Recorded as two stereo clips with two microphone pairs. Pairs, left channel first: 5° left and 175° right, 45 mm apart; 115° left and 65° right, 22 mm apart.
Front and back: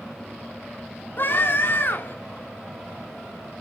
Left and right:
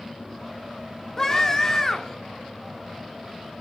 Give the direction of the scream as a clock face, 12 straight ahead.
11 o'clock.